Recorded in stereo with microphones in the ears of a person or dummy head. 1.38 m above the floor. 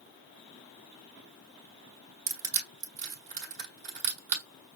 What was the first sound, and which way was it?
Crushing, 40° right (ahead or behind).